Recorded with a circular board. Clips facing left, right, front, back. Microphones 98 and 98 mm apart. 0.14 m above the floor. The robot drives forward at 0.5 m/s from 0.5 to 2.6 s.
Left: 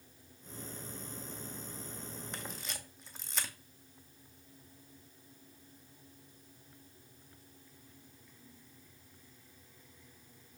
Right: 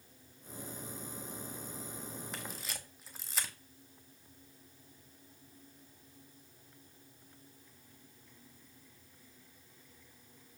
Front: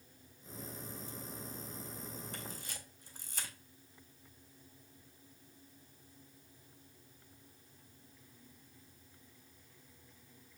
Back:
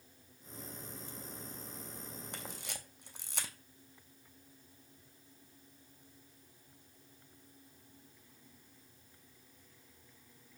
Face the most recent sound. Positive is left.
turn(degrees=-175)